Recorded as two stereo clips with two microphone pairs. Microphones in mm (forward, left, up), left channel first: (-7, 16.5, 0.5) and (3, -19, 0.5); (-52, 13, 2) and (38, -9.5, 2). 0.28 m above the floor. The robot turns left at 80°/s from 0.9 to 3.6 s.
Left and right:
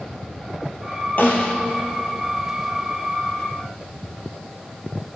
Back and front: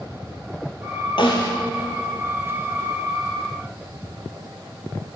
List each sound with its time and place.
1.2 s a snare drum: 140° left, 2.5 m; by 1.6 s 110° left, 2.5 m